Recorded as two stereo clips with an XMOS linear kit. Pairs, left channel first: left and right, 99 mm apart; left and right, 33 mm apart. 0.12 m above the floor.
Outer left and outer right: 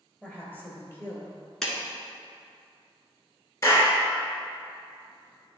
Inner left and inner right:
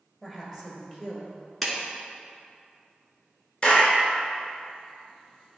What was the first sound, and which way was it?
A woman speaking, 15° left (ahead or behind).